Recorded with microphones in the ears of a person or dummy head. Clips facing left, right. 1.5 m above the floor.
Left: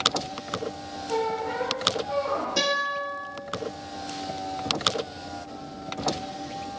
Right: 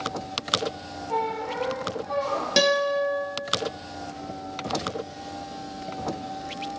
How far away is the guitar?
About 0.9 m.